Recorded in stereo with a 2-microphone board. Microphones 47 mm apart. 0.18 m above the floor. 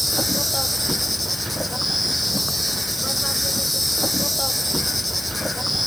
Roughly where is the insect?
Centre.